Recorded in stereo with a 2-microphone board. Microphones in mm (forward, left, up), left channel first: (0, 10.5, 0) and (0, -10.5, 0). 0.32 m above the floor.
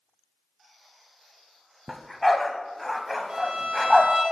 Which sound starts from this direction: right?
A violin, at 3.3 s.